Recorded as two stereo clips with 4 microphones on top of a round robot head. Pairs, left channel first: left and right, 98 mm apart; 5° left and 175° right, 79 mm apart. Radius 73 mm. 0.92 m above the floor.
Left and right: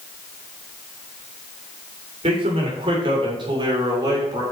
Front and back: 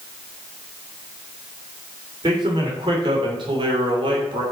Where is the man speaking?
130° right, 3 m; by 4.4 s 155° right, 2.5 m.